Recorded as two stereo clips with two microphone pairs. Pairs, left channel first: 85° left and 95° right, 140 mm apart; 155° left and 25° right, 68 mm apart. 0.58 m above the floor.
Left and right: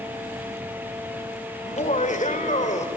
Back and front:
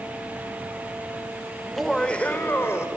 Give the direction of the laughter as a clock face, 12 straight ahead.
10 o'clock.